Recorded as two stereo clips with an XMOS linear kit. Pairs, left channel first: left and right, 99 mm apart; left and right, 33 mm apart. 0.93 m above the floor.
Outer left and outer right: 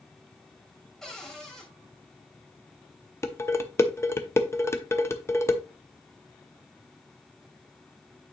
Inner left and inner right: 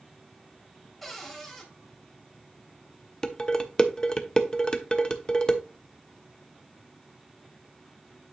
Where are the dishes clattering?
25° left (ahead or behind), 0.7 m.